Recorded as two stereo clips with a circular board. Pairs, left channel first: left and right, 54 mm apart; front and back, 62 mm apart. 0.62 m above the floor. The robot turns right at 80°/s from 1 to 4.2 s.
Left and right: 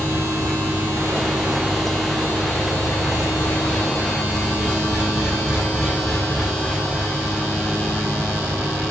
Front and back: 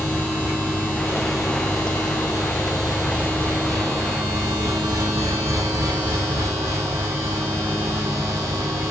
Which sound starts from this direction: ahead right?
An engine running, at 0.0 s.